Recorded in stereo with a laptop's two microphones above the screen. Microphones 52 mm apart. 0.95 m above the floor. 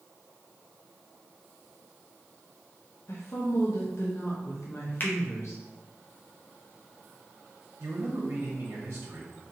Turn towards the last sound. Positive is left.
turn(degrees=-60)  # may be behind; listen again after turning